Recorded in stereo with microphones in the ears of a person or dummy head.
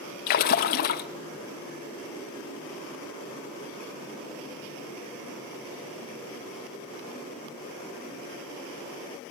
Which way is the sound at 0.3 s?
55° left (ahead or behind).